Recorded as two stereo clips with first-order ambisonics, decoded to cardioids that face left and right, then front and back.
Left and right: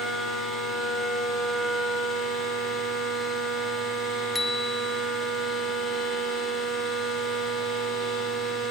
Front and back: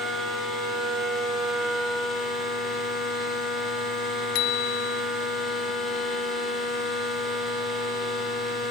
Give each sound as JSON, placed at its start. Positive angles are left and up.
{"t": 4.3, "sound": "a bicycle bell", "azimuth_deg": 10}